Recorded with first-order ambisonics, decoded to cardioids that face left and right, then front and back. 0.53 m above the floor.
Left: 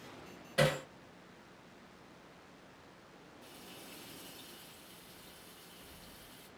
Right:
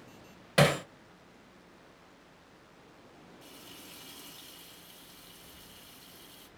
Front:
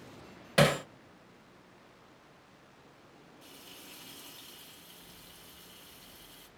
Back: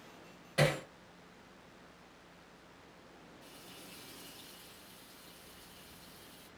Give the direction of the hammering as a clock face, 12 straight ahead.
2 o'clock.